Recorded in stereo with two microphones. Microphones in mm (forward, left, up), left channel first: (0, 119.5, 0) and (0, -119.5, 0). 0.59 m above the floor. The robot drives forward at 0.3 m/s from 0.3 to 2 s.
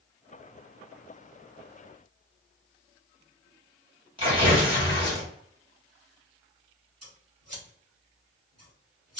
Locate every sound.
4.2 s tearing paper: 20° right (ahead or behind), 1.5 m
7.0 s scissors: 75° right (ahead or behind), 1.8 m